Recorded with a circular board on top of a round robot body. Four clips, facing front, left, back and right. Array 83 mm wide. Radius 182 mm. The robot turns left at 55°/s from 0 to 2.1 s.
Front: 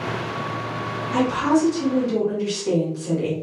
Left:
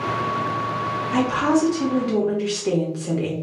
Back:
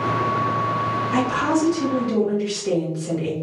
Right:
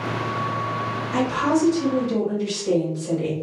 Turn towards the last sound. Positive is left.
turn(degrees=95)